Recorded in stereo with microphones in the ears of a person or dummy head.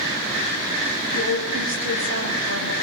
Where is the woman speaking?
85° right, 6.5 m.